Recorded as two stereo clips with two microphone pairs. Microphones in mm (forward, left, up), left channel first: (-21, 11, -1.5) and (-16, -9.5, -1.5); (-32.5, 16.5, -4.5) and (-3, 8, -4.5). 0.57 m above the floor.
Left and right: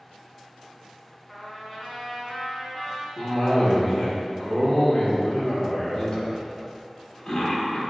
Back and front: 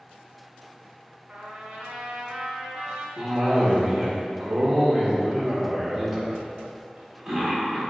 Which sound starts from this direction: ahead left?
A cough, at 3.2 s.